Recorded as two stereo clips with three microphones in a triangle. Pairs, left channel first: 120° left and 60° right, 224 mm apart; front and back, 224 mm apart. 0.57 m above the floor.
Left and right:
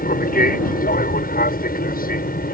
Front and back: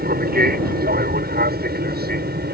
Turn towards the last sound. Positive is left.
turn(degrees=155)